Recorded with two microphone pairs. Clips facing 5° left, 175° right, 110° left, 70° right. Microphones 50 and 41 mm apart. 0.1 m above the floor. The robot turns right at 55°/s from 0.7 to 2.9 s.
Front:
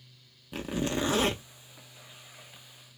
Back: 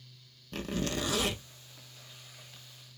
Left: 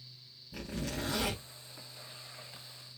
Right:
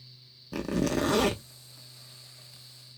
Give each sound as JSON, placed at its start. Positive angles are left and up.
{"t": 0.5, "sound": "a zipper", "azimuth_deg": -75, "distance_m": 0.8}